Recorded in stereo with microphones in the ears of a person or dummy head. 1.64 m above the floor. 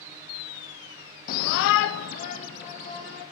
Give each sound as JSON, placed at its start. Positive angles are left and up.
{"t": 1.3, "sound": "a shout", "side_deg": 45, "distance_m": 0.7}